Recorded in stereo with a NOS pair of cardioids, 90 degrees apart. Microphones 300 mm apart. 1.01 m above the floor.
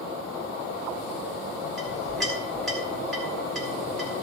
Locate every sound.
1.8 s a clink: straight ahead, 5 m